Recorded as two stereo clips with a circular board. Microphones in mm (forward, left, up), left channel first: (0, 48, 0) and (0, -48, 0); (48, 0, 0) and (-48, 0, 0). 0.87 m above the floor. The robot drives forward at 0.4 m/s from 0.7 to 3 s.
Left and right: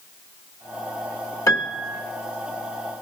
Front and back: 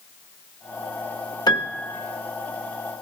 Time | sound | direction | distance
1.5 | a piano | 40° left | 1.1 m